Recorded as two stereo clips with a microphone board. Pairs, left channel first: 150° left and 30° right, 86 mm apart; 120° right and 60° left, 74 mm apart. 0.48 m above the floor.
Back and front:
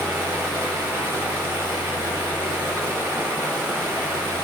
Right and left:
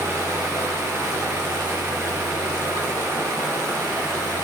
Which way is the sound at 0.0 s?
30° left.